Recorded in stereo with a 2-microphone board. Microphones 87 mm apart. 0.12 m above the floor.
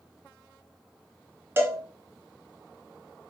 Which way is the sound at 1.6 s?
30° right (ahead or behind).